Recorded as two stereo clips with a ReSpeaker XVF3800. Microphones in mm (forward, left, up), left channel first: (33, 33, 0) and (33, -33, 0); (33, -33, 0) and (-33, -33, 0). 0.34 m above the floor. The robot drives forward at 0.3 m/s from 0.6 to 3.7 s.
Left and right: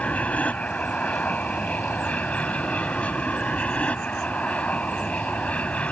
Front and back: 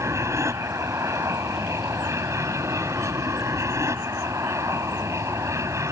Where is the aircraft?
155° left.